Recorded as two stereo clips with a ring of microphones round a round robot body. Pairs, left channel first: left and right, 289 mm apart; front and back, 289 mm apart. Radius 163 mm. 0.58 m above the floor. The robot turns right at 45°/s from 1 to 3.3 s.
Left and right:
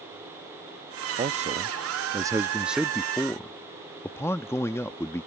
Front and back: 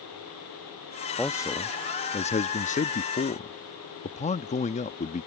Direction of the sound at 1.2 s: 75° right.